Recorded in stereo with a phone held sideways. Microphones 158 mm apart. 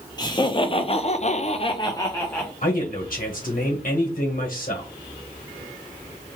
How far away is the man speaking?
About 1.3 m.